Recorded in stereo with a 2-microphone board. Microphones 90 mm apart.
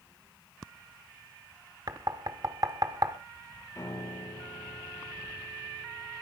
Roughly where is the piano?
Left.